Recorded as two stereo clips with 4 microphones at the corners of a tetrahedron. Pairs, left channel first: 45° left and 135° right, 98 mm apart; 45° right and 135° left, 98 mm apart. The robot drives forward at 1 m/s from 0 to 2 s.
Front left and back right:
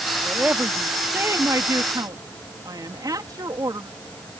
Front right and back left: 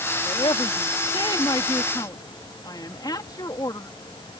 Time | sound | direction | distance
0.2 | a woman speaking | 60° right | ?